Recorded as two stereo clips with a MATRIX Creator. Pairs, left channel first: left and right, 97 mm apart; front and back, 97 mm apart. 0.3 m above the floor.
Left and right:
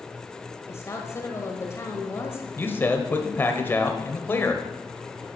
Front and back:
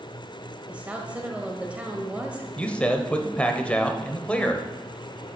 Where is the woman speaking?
115° left, 1.5 m.